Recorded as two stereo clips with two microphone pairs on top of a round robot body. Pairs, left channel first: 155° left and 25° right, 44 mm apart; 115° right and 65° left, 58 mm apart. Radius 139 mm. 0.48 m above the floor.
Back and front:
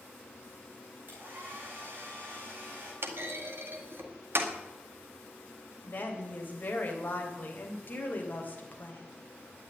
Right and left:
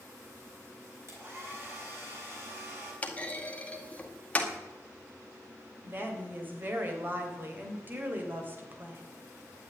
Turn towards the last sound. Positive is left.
turn(degrees=115)